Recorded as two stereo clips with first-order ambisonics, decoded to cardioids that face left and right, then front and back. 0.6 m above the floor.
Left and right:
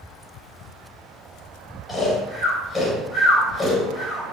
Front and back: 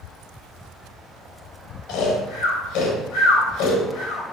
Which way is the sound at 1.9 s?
20° left.